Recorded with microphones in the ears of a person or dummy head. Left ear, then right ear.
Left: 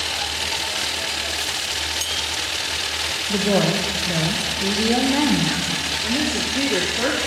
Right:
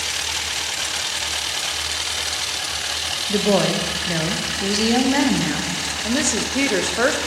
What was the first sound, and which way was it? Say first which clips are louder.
A woman speaking: right 2 dB; 20° right (ahead or behind).